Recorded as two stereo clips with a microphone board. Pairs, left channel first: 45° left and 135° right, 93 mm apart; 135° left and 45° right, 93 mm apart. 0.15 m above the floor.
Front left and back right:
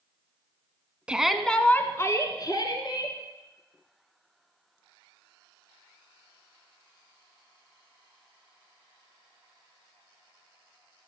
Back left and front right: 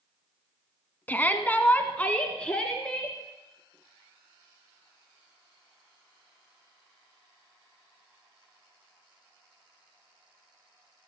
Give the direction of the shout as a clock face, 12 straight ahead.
6 o'clock.